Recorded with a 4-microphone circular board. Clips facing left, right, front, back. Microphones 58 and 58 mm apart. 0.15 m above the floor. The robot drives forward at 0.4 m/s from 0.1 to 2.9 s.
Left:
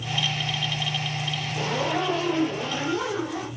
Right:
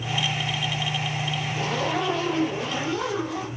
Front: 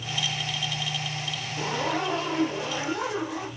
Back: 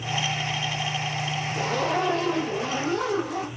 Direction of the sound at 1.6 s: 170° left.